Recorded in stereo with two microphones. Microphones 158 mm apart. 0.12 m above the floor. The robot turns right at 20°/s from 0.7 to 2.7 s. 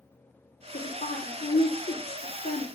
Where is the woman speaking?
65° left, 5 m; by 2.6 s 100° left, 5 m.